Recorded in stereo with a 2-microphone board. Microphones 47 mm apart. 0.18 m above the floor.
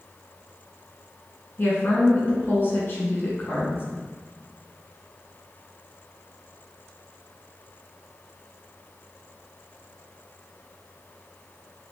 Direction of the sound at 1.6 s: 45° left (ahead or behind).